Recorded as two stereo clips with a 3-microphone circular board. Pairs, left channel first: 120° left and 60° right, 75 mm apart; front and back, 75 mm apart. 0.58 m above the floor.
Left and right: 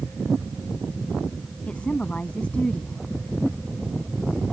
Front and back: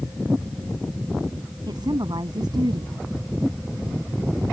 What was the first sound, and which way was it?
A woman speaking, 165° right.